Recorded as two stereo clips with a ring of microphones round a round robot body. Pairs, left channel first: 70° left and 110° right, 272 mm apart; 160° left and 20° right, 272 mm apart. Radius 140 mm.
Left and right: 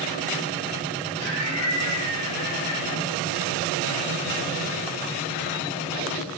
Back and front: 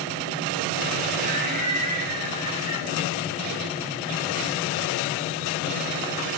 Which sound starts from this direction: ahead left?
Laughter, at 1.2 s.